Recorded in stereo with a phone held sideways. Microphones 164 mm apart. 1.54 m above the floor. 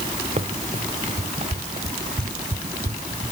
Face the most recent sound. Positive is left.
turn(degrees=-40)  # may be behind; listen again after turning